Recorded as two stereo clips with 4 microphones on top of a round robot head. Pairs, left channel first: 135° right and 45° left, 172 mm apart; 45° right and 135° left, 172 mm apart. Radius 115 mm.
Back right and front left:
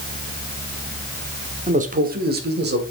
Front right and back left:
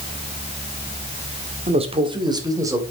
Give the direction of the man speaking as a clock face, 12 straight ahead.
9 o'clock.